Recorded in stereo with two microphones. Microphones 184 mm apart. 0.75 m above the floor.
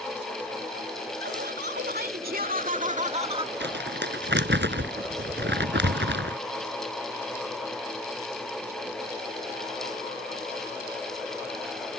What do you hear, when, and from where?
1.2 s laughter: 65° right (ahead or behind); by 3.5 s 25° right (ahead or behind)
3.6 s crumpling: 80° right